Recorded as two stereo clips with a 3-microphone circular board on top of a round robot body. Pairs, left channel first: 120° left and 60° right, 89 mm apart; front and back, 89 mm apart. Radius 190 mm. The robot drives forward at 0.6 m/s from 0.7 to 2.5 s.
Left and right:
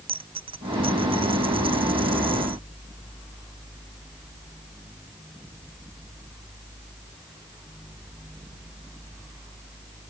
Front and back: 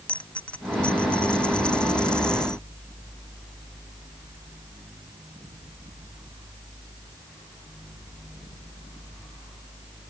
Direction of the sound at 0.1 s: 75° right.